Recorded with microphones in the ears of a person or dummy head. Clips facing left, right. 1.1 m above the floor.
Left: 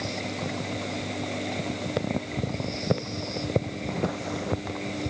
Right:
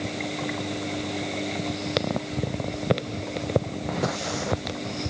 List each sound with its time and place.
Only background noise.